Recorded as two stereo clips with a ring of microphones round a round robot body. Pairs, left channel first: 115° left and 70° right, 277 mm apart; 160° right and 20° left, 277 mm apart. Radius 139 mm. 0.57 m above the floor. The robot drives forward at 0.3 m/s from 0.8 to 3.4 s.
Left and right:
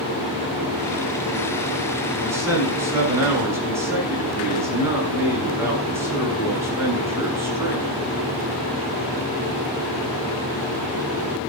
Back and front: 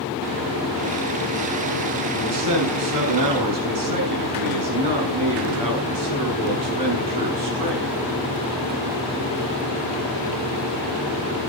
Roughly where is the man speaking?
Ahead.